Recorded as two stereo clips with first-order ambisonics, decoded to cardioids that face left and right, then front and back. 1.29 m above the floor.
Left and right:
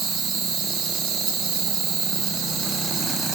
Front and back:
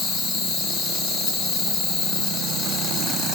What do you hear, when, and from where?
0.0 s an insect: 40° right, 3 m